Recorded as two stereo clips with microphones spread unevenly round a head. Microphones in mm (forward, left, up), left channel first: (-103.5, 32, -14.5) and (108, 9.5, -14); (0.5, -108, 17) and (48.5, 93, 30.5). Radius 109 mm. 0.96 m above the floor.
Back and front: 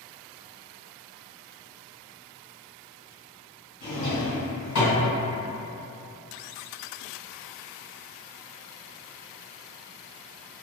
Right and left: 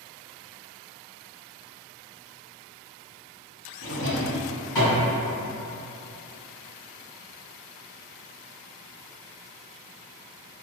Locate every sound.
3.8 s a drawer: 175° left, 1.9 m